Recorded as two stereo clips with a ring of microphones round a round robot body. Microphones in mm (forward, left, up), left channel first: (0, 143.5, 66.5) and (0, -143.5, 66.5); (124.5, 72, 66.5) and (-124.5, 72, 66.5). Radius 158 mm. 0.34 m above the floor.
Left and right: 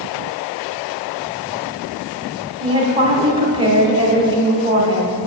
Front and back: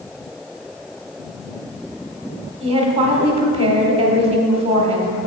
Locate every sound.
2.6 s a woman speaking: 145° right, 1.2 m